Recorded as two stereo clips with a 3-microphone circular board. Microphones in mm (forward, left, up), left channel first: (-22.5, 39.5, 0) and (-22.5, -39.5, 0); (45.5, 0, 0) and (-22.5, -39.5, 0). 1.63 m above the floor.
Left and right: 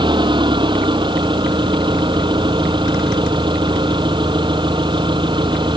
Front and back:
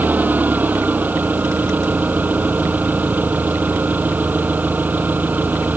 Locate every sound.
0.0 s an engine running: 80° right